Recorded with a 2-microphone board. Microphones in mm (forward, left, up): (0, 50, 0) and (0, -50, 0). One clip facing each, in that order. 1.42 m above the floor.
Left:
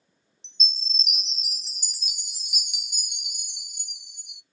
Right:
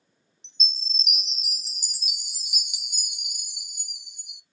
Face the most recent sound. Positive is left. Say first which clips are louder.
# left 1 dB
turn(degrees=0)  # may be behind; listen again after turning